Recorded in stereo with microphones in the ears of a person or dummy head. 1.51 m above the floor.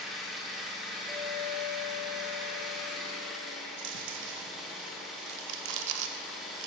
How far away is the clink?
About 1.1 m.